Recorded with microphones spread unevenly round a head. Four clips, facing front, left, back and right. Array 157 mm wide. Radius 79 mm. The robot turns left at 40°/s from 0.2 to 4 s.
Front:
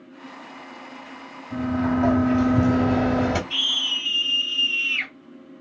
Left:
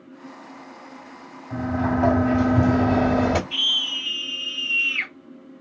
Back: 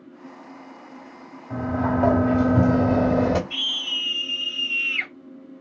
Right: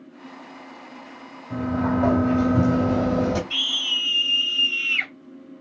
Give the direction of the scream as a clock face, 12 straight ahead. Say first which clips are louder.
Even, front 2 dB; 3 o'clock.